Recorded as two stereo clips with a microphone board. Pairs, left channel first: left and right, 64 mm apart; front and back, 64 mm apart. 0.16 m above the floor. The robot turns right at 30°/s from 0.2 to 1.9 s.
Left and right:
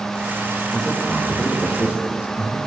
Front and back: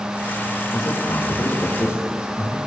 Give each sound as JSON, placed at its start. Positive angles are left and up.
{"t": 0.7, "sound": "a man speaking", "azimuth_deg": 5, "distance_m": 8.0}